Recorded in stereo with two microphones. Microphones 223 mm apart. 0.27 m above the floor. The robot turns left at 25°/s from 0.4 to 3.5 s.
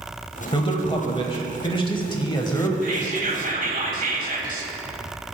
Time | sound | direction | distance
0.5 | a man speaking | 25° left (ahead or behind) | 1.1 m
2.8 | whispering | 35° right (ahead or behind) | 1.5 m